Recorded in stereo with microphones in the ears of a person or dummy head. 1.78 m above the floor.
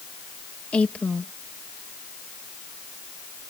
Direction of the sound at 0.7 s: 5° left (ahead or behind).